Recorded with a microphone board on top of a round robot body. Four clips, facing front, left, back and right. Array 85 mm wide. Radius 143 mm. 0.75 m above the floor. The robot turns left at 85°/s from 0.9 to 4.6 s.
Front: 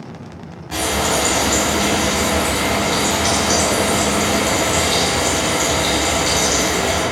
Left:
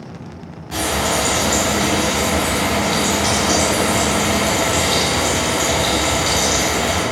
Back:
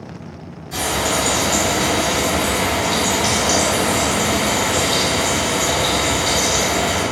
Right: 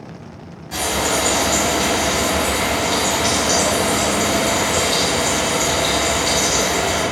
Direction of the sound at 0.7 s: 20° left.